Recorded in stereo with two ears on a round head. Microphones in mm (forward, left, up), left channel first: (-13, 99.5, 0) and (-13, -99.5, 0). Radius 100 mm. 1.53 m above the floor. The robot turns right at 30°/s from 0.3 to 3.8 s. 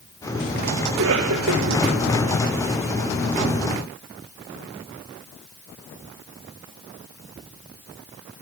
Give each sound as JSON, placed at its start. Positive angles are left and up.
{"t": 0.9, "sound": "a cough", "side_deg": -60, "distance_m": 2.0}